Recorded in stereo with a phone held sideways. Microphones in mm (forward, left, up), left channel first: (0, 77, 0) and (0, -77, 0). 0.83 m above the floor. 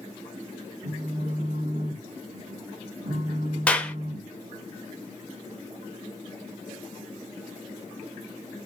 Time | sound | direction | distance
0.8 | a phone buzzing | 45° right (ahead or behind) | 1.5 m
3.7 | a clap | 5° left (ahead or behind) | 0.7 m